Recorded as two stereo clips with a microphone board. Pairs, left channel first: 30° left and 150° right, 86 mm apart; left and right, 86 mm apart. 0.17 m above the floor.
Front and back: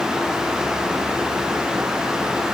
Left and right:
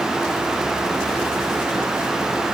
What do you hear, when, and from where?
Only background noise.